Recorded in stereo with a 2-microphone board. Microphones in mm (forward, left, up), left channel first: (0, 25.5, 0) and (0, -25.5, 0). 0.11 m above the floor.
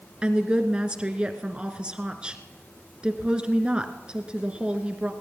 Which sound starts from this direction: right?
A woman speaking, at 0.2 s.